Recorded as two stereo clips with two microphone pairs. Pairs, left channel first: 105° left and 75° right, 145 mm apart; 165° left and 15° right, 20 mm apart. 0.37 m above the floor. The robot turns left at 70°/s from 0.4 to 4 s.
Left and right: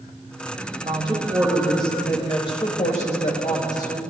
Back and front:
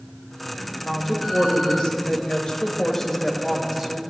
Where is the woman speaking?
105° right, 1.2 m; by 4.0 s 35° left, 1.2 m.